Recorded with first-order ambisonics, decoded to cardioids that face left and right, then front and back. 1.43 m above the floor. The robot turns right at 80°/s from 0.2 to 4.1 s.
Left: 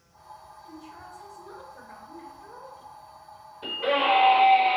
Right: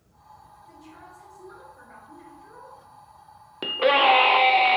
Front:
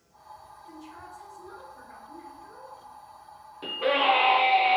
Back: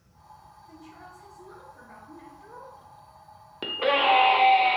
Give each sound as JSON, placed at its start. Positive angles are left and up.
{"t": 0.7, "sound": "a woman speaking", "azimuth_deg": 5, "distance_m": 1.2}
{"t": 3.6, "sound": "a scream", "azimuth_deg": -125, "distance_m": 0.5}